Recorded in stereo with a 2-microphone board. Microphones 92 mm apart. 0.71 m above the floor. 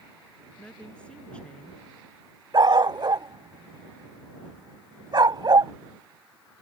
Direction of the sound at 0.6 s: 10° left (ahead or behind).